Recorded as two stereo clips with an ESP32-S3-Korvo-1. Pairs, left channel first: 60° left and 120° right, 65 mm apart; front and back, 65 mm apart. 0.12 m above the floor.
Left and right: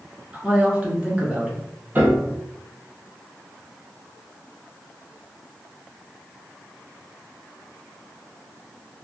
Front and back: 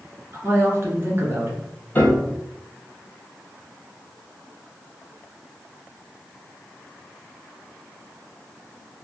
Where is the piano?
60° right, 1.0 m.